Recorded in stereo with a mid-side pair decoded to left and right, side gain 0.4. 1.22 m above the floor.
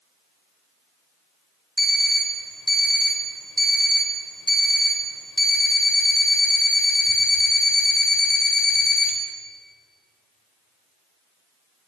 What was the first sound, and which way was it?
An alarm clock, straight ahead.